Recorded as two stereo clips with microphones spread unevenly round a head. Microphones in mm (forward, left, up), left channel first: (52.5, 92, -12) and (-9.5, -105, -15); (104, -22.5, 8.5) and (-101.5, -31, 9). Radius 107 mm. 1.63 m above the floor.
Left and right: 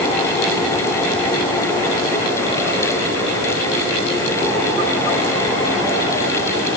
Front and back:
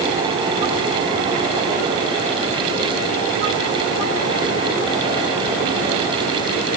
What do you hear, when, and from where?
Only background noise.